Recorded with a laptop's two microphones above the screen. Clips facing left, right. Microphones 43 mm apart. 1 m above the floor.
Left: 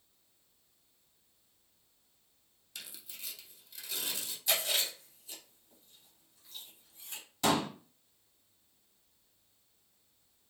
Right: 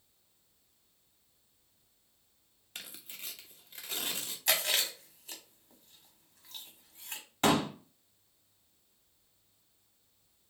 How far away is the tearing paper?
About 0.6 m.